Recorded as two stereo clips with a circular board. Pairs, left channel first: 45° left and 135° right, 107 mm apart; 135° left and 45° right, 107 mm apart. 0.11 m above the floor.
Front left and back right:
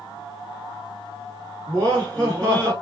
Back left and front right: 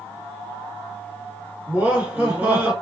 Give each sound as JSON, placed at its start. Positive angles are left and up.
{"t": 1.7, "sound": "laughter", "azimuth_deg": -15, "distance_m": 1.3}